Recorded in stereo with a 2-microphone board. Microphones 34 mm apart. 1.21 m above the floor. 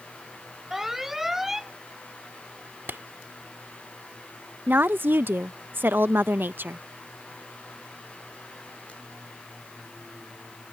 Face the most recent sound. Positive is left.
turn(degrees=-80)